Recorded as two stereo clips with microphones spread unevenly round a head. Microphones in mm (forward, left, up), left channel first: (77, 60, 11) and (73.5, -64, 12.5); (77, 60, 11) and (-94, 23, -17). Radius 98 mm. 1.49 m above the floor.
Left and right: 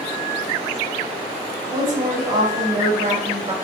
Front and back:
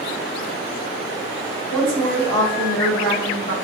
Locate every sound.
1.7 s a woman speaking: 80° right, 2 m; by 3.5 s 50° right, 1.6 m